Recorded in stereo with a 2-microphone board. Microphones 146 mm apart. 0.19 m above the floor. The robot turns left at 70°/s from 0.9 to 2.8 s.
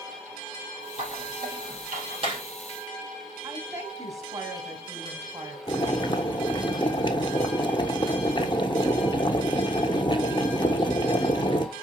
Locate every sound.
1.0 s a squeak: 50° right (ahead or behind), 3.5 m; by 2.4 s 30° right (ahead or behind), 3.5 m
3.4 s a woman speaking: 25° right (ahead or behind), 1.6 m
5.7 s boiling: 35° left (ahead or behind), 0.8 m